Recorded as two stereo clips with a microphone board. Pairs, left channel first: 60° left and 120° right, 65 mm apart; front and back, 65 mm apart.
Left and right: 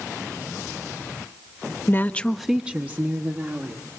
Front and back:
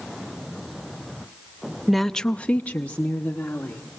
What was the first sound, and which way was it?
A woman speaking, 90° left.